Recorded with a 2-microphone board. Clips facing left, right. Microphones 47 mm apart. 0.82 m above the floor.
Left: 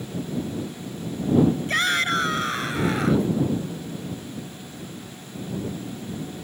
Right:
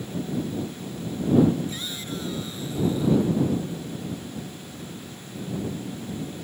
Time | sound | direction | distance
1.7 | a shout | 80° left | ?